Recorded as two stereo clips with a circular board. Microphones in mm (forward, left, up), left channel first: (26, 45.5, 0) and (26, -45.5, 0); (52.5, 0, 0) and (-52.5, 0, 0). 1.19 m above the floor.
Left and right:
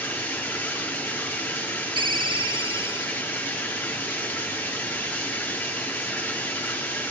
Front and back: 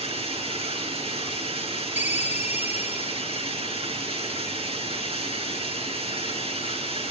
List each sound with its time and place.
0.0 s running water: 160° left, 5.5 m
2.0 s a ringtone: 110° right, 1.2 m